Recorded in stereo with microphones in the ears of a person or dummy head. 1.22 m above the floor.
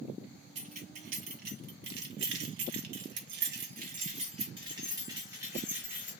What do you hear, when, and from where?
0.6 s keys jangling: 45° right (ahead or behind), 1.6 m; by 6.1 s 5° right (ahead or behind), 1.8 m